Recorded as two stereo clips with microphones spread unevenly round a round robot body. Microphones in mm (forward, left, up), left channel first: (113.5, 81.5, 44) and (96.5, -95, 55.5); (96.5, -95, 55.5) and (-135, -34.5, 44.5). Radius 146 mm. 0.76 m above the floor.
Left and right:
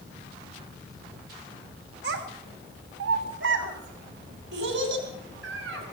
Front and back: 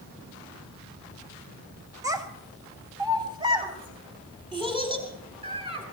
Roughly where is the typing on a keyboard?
No typing on a keyboard in this recording.